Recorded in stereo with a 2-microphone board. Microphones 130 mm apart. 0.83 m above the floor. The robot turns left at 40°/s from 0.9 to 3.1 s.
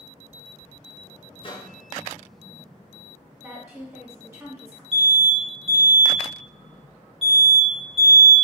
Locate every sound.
1.4 s a microwave: 40° left (ahead or behind), 0.7 m; by 1.8 s 35° left (ahead or behind), 0.7 m
3.4 s a woman speaking: 20° right (ahead or behind), 1.6 m
4.9 s an alarm: 45° right (ahead or behind), 1.5 m